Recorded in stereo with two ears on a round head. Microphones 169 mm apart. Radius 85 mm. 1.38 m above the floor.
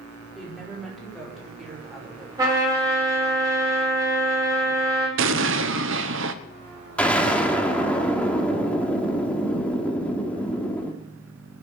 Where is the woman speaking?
Centre (ahead or behind), 4 m.